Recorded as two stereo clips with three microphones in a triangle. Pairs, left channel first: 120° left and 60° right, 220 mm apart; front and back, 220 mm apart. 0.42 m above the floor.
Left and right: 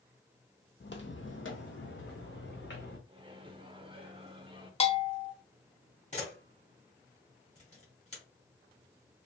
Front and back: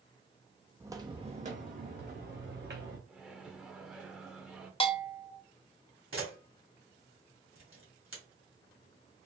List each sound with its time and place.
0.8 s footsteps: 105° left, 0.6 m; by 3.0 s 155° left, 1.7 m
3.1 s a microwave: 95° right, 0.6 m
4.8 s a bell: 60° left, 0.5 m
6.1 s a camera shutter: 175° left, 2.0 m